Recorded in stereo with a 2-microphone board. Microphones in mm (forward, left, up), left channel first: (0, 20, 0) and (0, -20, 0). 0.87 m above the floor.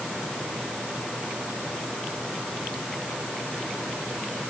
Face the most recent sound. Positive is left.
No sound to turn to.